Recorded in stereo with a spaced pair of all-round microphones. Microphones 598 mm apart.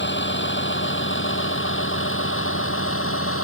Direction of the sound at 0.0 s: 15° left (ahead or behind).